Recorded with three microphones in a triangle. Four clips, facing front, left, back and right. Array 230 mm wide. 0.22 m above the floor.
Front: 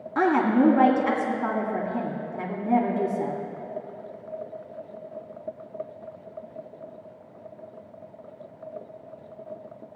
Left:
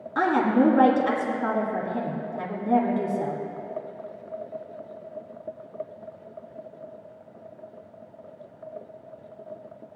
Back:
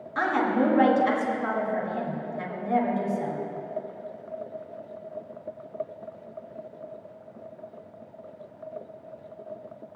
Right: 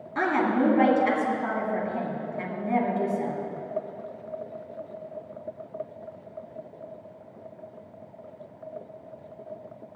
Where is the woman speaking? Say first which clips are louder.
Left 3 dB, front 4 dB; 10° left, 2 m.